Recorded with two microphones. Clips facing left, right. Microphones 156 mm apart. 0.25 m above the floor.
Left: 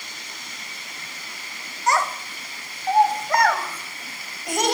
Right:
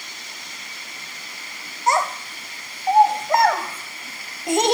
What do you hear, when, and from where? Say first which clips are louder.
1.9 s a child speaking: right 2 dB; 25° right (ahead or behind), 0.6 m